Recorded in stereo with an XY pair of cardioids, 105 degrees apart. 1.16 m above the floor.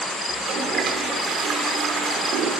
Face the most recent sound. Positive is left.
turn(degrees=-70)